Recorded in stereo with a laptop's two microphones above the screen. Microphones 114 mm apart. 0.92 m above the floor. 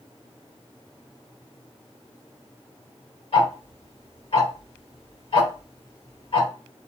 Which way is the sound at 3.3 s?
60° left (ahead or behind).